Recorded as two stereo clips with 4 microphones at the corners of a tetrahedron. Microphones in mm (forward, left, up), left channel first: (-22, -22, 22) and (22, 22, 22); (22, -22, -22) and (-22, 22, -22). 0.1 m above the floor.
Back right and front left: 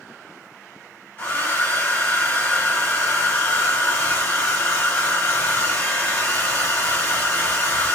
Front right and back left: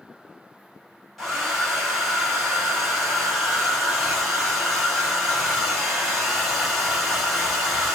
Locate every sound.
1.2 s a hair dryer: 130° right, 1.8 m